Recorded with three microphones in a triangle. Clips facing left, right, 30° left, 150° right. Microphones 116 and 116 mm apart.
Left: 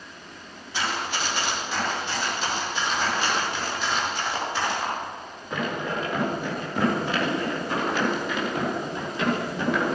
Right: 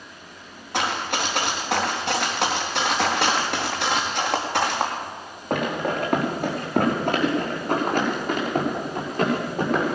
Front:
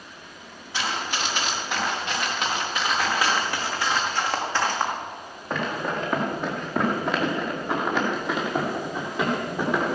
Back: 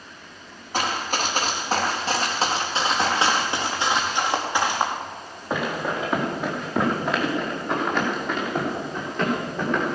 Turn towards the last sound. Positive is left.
turn(degrees=-45)